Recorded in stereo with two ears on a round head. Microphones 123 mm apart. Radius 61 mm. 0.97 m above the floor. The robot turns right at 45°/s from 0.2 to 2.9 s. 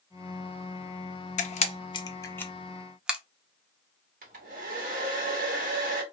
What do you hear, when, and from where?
1.4 s a camera shutter: 60° left (ahead or behind), 0.5 m; by 3.2 s 10° right (ahead or behind), 0.5 m
4.2 s a hair dryer: 65° right (ahead or behind), 1.2 m